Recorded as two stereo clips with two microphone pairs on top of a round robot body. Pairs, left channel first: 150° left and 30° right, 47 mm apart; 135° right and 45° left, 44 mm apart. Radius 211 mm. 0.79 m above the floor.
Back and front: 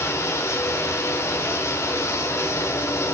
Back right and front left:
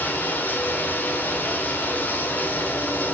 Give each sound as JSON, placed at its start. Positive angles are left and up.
{"t": 0.0, "sound": "running water", "azimuth_deg": 175, "distance_m": 1.3}